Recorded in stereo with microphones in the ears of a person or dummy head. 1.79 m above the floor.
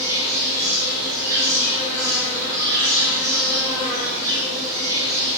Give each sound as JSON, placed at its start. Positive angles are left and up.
{"t": 0.0, "sound": "an insect", "side_deg": -15, "distance_m": 2.5}